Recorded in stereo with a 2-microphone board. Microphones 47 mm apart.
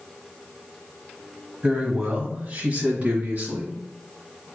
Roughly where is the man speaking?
Right.